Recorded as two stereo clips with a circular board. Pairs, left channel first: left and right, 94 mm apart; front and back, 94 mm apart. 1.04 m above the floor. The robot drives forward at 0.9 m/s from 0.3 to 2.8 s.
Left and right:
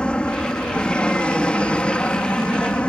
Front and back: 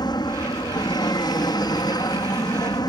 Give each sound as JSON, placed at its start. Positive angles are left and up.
{"t": 0.0, "sound": "an aircraft", "azimuth_deg": 15}